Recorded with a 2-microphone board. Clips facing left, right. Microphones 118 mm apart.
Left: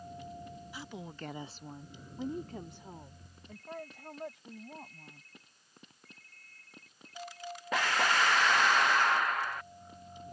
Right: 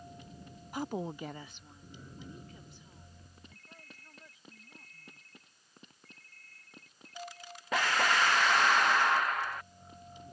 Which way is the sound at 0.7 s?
50° right (ahead or behind).